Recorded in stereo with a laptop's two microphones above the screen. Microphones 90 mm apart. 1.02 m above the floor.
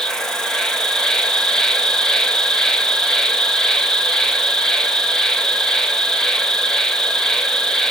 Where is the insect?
5° left (ahead or behind), 1.0 m.